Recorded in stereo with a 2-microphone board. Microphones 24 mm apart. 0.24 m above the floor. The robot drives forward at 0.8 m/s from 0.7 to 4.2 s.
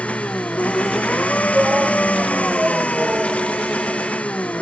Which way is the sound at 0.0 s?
70° left (ahead or behind).